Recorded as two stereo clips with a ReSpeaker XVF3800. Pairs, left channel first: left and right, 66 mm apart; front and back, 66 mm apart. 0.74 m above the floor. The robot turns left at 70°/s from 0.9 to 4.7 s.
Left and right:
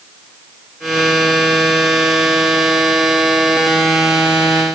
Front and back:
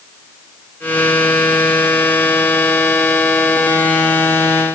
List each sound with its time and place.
Only background noise.